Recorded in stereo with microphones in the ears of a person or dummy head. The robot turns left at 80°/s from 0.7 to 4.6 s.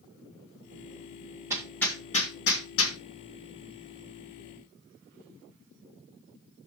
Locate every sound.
1.5 s hammering: 20° right (ahead or behind), 1.8 m; by 3.0 s 80° left, 1.8 m